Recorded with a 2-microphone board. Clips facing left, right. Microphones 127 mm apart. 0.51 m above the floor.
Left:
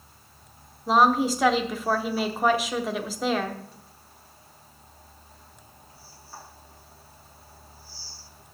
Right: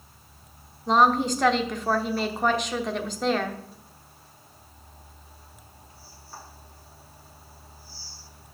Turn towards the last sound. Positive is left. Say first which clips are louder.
# even
turn(degrees=5)  # may be behind; listen again after turning